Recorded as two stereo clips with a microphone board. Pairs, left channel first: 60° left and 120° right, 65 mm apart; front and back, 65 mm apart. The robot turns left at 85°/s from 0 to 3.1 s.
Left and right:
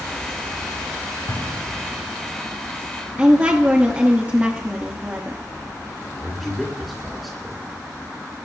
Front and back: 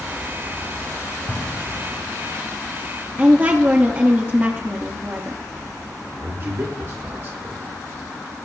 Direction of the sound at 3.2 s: 165° right.